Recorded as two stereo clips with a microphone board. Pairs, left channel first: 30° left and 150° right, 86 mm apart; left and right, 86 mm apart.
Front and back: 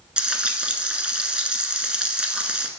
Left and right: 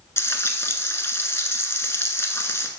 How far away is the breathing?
No breathing in this recording.